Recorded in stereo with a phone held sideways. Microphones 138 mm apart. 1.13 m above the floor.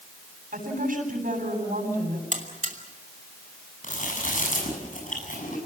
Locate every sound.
0.5 s a woman speaking: 80° right, 8 m
2.3 s a buzzer: 65° right (ahead or behind), 2.5 m
3.8 s chewing: 70° left (ahead or behind), 7.5 m